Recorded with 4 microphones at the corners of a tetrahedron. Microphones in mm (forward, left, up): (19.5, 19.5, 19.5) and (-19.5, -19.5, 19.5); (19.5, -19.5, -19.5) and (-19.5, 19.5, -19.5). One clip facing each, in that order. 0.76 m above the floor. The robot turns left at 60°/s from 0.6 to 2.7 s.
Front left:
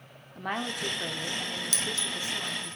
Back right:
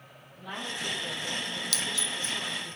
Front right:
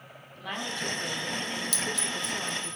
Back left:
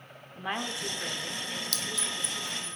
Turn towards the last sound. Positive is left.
turn(degrees=45)